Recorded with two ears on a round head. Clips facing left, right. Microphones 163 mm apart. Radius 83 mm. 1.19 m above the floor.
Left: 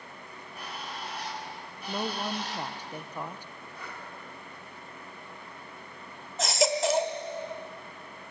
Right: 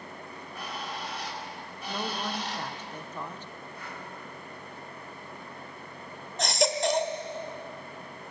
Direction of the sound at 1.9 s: 10° left (ahead or behind).